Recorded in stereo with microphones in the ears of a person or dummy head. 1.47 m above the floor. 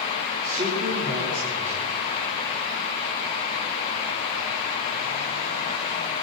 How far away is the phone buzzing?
No phone buzzing in this recording.